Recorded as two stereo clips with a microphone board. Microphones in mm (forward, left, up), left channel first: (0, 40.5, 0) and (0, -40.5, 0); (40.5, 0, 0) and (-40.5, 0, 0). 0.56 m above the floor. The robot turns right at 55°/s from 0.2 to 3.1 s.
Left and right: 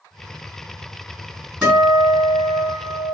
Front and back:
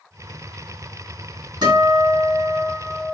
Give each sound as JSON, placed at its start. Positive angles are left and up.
{"t": 1.6, "sound": "a guitar", "azimuth_deg": -170, "distance_m": 3.0}